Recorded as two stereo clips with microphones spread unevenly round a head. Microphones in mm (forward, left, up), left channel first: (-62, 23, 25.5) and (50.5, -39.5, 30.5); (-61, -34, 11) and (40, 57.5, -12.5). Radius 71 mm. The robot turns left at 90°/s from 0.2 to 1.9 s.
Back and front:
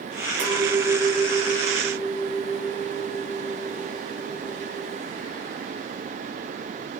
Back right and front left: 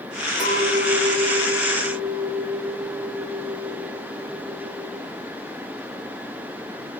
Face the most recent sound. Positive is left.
turn(degrees=180)